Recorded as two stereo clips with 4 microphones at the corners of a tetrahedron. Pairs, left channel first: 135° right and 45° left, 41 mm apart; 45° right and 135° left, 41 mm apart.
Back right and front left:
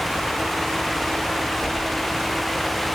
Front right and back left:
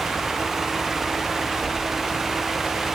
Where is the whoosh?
55° right, 10 m.